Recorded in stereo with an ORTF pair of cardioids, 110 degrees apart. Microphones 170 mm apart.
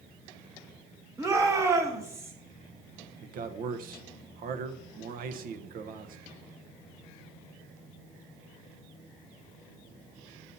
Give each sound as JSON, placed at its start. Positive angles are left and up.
{"t": 1.2, "sound": "a shout", "azimuth_deg": -15, "distance_m": 1.0}
{"t": 3.2, "sound": "a man speaking", "azimuth_deg": -60, "distance_m": 0.9}